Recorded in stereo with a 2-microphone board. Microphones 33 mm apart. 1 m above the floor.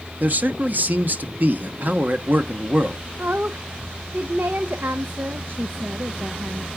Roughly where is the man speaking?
Right.